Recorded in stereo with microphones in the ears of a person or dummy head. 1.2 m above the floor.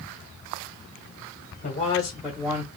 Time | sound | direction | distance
1.6 | a man speaking | 35° left (ahead or behind) | 0.9 m